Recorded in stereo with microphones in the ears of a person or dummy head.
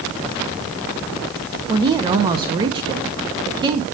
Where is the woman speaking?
30° right (ahead or behind), 0.7 m.